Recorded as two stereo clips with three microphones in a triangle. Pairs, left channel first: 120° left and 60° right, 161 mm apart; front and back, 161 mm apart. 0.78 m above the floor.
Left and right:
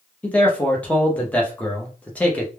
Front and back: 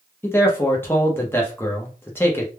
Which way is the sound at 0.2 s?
50° left.